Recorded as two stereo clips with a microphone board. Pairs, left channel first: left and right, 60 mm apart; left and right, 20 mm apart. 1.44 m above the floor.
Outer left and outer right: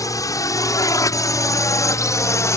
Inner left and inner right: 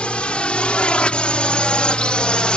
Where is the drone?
75° left (ahead or behind); by 2.6 s 60° left (ahead or behind).